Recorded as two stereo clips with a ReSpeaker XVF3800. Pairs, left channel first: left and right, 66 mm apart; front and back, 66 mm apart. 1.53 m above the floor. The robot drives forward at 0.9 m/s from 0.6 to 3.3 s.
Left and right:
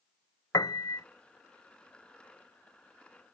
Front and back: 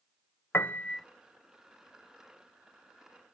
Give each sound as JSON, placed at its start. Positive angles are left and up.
{"t": 0.5, "sound": "a piano", "azimuth_deg": 55}